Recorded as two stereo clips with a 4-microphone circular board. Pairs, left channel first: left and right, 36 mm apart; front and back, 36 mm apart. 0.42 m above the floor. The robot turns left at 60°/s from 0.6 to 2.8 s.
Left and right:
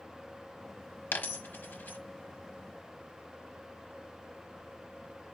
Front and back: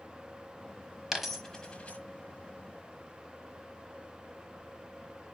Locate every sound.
1.1 s a dropped coin: 105° left, 0.8 m; by 2.0 s 50° left, 0.8 m